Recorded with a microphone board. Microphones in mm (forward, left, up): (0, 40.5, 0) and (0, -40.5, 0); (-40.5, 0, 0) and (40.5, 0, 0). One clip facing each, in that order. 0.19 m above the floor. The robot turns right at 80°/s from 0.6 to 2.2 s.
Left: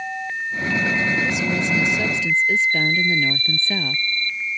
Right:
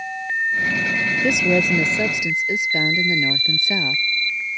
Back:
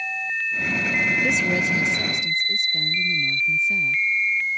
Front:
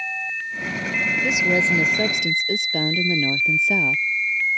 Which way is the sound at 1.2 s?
90° right.